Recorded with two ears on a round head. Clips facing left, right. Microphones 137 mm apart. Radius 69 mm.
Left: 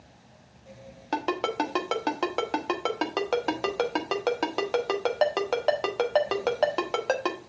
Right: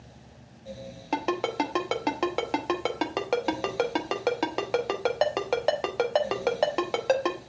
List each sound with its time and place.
1.1 s a ringtone: 5° right (ahead or behind), 1.3 m